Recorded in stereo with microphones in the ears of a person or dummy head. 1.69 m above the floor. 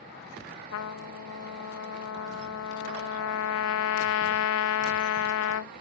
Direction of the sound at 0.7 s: 65° left (ahead or behind).